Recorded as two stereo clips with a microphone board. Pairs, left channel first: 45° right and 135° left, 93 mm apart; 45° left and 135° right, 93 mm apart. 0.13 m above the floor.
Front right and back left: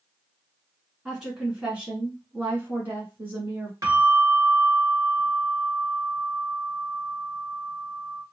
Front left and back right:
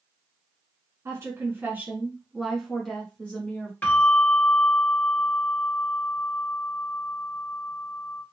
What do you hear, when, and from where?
1.1 s a woman speaking: 150° right, 1.4 m; by 3.7 s 90° left, 1.5 m
3.8 s a bell: 105° left, 2.0 m